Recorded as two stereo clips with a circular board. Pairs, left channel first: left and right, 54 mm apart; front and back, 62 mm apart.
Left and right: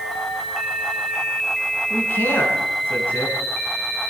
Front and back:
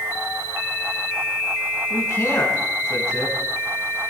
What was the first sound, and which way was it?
A man speaking, 35° left.